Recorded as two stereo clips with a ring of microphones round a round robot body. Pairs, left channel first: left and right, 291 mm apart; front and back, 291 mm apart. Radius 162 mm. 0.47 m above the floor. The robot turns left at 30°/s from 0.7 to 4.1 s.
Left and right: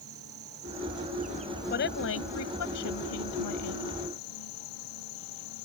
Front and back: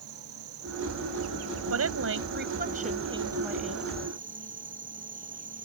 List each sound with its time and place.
0.0 s an insect: 140° right; by 5.7 s 115° left
1.7 s a woman speaking: 150° left; by 4.0 s 80° left